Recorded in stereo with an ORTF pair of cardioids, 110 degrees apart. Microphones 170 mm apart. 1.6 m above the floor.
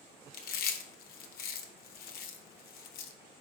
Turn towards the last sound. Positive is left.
turn(degrees=65)